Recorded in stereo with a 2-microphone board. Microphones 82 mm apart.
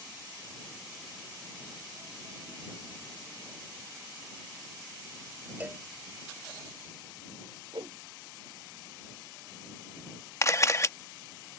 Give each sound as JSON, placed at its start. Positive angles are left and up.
{"t": 5.6, "sound": "a cowbell", "side_deg": -20}
{"t": 7.7, "sound": "a whoosh", "side_deg": -65}
{"t": 10.4, "sound": "a camera shutter", "side_deg": 35}